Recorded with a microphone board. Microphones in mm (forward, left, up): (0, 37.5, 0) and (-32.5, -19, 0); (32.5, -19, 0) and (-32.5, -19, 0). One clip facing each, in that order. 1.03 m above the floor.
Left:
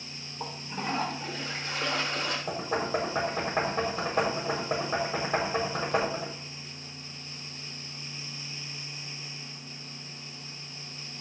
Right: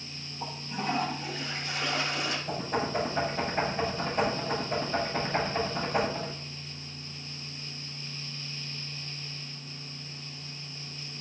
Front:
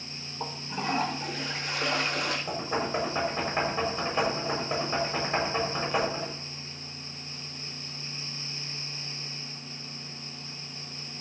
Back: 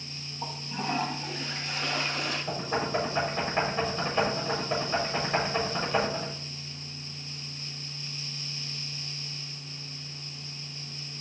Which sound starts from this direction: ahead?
A toilet flushing, at 0.4 s.